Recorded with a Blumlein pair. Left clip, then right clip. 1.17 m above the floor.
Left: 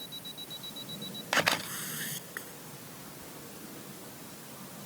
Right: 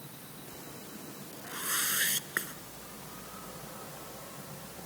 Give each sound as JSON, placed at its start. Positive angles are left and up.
{"t": 1.4, "sound": "a whoosh", "azimuth_deg": -65}